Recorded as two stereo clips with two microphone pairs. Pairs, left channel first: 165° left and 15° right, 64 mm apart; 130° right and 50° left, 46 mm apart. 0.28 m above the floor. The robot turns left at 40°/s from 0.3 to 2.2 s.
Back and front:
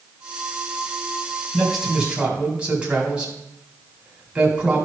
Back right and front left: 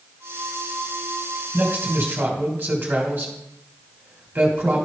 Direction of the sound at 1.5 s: 75° left.